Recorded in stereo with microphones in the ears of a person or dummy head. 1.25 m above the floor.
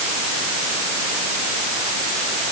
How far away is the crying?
I don't hear crying.